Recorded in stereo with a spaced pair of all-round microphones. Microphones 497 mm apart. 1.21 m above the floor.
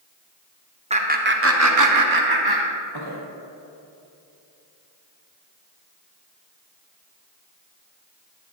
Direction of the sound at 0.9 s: 15° right (ahead or behind).